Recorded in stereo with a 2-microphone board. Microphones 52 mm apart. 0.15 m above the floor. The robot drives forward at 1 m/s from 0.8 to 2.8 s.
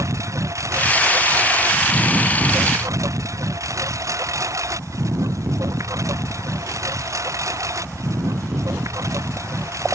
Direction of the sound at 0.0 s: 75° right (ahead or behind).